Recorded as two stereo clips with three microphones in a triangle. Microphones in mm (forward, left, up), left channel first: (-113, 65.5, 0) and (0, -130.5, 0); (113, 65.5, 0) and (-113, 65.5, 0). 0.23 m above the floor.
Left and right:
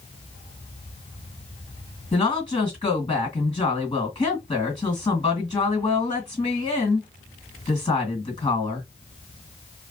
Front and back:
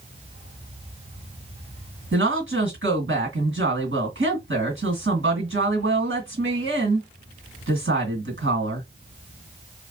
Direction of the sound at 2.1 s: 175° right.